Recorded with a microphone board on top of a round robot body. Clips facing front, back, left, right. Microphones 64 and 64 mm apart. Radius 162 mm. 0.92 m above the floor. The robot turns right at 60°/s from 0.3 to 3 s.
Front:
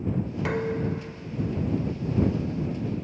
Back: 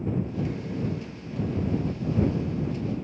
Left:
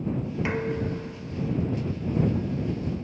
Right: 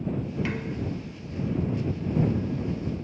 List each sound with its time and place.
0.5 s dishes clattering: 20° left; by 1.9 s 105° left